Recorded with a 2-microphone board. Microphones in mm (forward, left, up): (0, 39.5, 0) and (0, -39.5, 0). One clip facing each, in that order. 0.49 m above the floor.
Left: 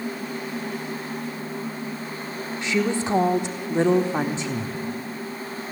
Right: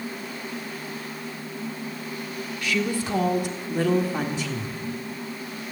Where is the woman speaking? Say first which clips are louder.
Left 3 dB; 25° left (ahead or behind), 1.4 m.